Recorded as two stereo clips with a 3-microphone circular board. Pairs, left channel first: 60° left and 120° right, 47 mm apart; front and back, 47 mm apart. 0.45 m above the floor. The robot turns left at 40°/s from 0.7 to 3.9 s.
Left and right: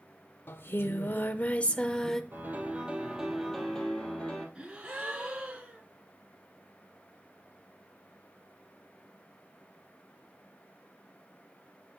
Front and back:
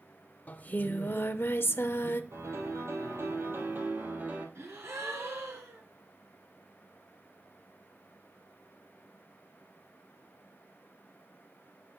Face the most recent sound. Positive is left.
turn(degrees=165)